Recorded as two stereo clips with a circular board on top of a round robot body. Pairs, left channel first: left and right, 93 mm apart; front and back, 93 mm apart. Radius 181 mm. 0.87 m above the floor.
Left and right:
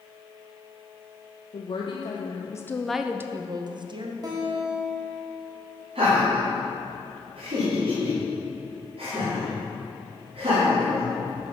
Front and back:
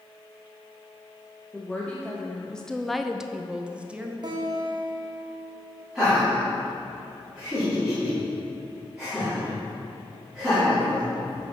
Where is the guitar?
140° right, 1.4 m.